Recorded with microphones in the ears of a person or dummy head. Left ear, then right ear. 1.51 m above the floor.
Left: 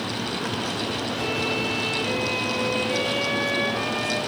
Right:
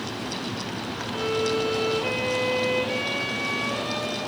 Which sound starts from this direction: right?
A violin, at 1.1 s.